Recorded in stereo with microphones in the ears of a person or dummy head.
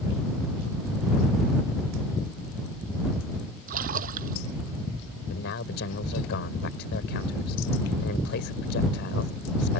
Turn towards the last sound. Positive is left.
turn(degrees=65)  # may be behind; listen again after turning